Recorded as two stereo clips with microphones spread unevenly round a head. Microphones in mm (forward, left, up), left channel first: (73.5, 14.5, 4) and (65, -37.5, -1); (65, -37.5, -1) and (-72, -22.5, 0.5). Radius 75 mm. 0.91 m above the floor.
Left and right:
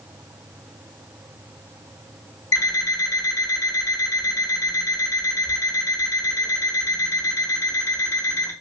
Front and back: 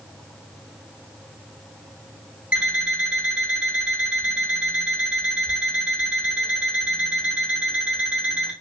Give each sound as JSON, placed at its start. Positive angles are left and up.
{"t": 2.5, "sound": "an alarm clock", "azimuth_deg": 90, "distance_m": 2.0}